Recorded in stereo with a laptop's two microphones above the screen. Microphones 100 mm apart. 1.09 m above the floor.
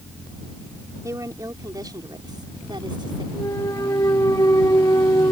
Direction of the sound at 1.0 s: 35° right (ahead or behind).